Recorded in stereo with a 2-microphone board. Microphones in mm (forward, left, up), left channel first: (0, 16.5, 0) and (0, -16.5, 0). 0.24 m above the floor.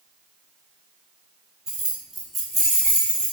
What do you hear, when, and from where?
1.7 s keys jangling: 15° right (ahead or behind), 1.1 m; by 3.3 s 25° left (ahead or behind), 1.6 m